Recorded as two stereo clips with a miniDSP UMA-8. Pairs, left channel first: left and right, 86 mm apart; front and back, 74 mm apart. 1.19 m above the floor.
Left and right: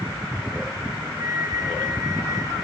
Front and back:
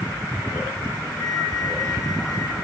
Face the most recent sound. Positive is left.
turn(degrees=-35)